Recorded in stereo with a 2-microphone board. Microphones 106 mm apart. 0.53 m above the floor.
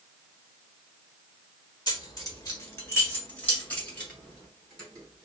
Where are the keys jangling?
40° left (ahead or behind), 1.2 m; by 5.3 s 5° left (ahead or behind), 2.5 m.